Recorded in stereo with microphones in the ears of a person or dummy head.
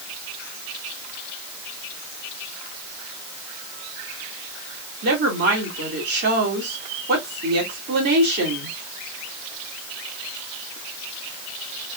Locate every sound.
5.0 s a woman speaking: 55° right (ahead or behind), 2.5 m